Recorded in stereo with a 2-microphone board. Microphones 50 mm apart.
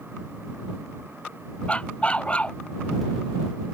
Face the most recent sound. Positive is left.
turn(degrees=25)  # may be behind; listen again after turning